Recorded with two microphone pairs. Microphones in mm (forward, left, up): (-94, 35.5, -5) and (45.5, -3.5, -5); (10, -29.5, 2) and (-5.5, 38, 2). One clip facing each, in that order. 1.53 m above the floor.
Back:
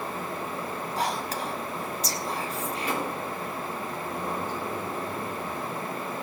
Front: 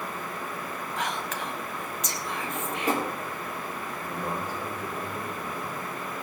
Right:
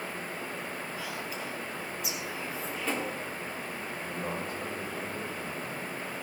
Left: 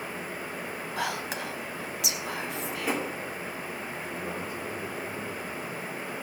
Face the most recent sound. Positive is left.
turn(degrees=-90)